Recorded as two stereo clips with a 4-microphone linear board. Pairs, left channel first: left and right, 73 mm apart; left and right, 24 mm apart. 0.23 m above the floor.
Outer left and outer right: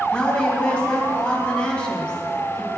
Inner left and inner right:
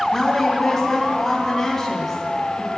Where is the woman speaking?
10° left (ahead or behind), 1.6 m.